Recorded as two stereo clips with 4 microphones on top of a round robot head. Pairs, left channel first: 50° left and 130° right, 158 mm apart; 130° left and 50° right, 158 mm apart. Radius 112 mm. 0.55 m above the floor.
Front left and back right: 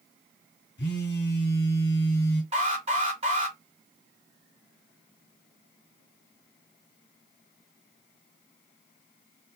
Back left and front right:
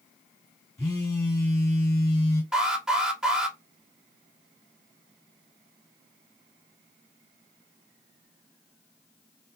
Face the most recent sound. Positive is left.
turn(degrees=-130)